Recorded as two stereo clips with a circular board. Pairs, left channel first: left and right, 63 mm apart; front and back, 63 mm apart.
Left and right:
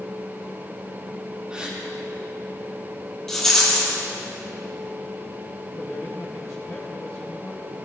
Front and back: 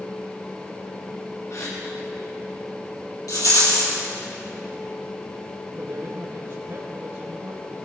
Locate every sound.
1.5 s a gasp: 15° right, 4 m
3.3 s a rattle: 5° left, 5.5 m
5.7 s a man speaking: 140° left, 3 m